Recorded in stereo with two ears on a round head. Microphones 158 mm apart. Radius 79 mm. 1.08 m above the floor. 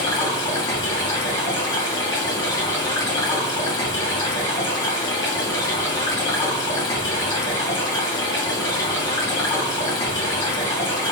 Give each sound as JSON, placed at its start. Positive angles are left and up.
{"t": 0.0, "sound": "running water", "side_deg": 25, "distance_m": 1.3}